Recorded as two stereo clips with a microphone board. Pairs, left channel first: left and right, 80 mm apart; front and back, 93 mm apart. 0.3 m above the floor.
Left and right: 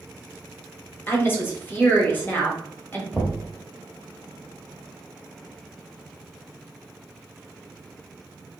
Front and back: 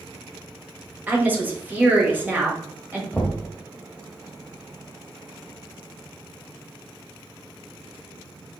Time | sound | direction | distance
1.1 | a woman speaking | 125° left | 1.2 m
3.1 | knocking | 45° left | 1.0 m